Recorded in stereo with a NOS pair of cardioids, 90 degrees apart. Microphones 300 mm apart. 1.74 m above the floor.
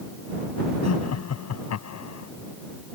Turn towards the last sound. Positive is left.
turn(degrees=55)